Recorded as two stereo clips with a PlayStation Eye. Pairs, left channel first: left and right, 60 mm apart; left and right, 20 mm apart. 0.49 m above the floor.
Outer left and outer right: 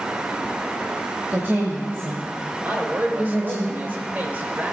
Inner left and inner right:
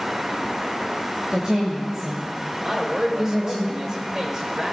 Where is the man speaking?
30° right (ahead or behind), 2.5 m.